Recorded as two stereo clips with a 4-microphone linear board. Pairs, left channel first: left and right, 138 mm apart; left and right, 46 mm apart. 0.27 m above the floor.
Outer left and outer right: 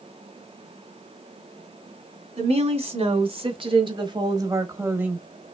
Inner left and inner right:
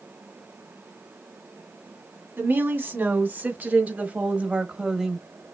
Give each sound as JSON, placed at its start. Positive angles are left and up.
{"t": 2.4, "sound": "a woman speaking", "side_deg": -45, "distance_m": 2.5}